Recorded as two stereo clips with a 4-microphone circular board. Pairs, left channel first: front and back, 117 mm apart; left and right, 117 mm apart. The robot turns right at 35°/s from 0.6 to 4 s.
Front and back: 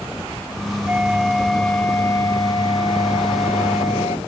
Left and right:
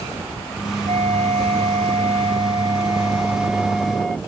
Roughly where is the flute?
Right.